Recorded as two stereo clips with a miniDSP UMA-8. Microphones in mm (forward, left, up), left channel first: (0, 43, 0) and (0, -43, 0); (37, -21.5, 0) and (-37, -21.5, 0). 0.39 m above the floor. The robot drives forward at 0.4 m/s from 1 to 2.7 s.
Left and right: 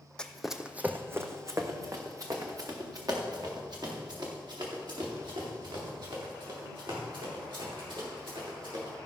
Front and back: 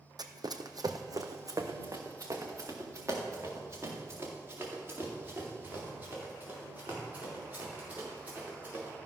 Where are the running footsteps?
170° left, 0.9 m; by 8.9 s 110° right, 6.5 m.